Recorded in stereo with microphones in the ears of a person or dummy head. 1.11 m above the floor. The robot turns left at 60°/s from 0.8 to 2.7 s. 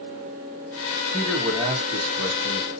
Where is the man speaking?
10° left, 2.0 m; by 2.7 s 85° right, 2.0 m.